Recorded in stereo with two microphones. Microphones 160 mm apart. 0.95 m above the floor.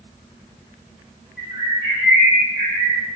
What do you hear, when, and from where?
1.4 s a bird: 85° left, 0.8 m